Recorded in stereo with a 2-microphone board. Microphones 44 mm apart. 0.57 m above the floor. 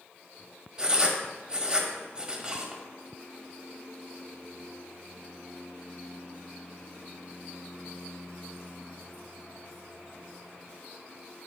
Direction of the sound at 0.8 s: 20° right (ahead or behind).